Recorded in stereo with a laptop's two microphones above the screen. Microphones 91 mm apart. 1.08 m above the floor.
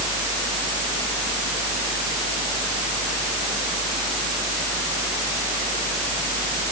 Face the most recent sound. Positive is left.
No sound to turn to.